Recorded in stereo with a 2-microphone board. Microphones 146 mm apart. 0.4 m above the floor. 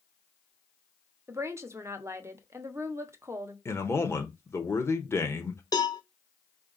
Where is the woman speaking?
20° right (ahead or behind), 0.8 m.